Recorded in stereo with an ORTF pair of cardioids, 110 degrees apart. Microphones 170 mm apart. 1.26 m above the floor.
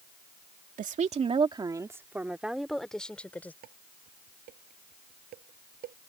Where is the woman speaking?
50° right; by 3.5 s 10° left.